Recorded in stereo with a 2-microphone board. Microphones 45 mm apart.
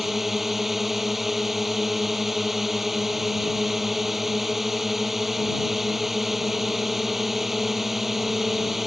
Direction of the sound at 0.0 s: 5° right (ahead or behind).